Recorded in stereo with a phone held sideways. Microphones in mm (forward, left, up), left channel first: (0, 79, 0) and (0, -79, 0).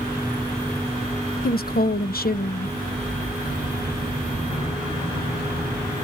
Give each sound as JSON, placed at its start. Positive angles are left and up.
{"t": 1.4, "sound": "a woman speaking", "side_deg": 70, "distance_m": 0.7}